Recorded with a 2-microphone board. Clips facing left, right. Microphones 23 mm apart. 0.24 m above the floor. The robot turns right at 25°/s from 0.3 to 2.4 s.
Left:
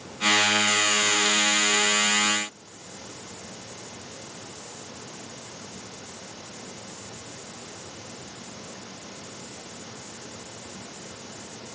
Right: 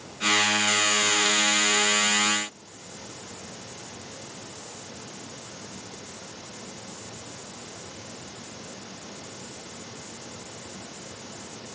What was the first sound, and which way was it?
Only background noise.